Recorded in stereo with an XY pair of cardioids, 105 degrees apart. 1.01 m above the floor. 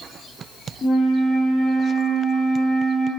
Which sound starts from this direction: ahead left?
A flute, at 0.8 s.